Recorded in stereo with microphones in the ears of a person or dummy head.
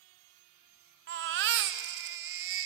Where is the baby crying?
45° right (ahead or behind), 0.8 m.